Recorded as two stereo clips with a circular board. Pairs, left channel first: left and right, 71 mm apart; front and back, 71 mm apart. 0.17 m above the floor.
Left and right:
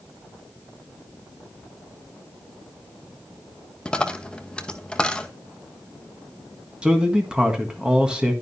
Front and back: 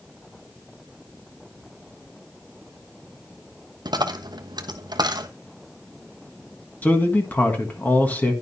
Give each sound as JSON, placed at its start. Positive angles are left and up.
{"t": 3.9, "sound": "a dropped coin", "azimuth_deg": 170, "distance_m": 0.7}
{"t": 6.8, "sound": "a man speaking", "azimuth_deg": -25, "distance_m": 1.5}